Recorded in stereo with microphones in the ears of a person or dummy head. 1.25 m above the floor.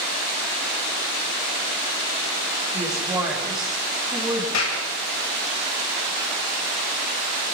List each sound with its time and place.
2.7 s a woman speaking: 5° right (ahead or behind), 6.5 m
4.5 s a clap: 90° left, 6 m